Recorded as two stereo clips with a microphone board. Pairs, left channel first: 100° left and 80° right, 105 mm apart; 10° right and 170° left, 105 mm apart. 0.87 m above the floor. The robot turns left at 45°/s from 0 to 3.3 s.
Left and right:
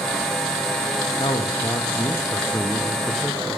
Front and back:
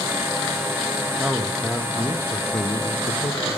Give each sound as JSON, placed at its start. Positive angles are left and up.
{"t": 1.2, "sound": "a man speaking", "azimuth_deg": 95, "distance_m": 0.7}